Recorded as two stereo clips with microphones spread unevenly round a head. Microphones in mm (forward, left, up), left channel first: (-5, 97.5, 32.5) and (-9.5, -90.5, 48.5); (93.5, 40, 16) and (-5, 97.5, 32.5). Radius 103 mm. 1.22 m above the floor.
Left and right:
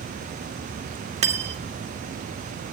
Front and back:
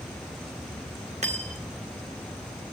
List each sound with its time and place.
1.2 s cutlery clinking: 150° right, 1.9 m